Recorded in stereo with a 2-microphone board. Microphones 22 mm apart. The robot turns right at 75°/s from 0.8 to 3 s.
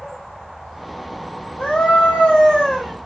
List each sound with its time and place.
1.6 s a scream: 80° left, 2 m; by 2.9 s straight behind, 2 m